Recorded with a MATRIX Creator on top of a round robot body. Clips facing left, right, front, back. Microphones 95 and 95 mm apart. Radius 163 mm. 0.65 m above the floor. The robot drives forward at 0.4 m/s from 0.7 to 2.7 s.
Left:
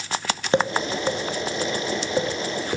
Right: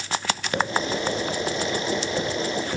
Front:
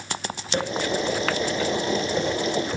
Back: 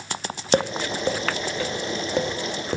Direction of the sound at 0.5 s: 145° left.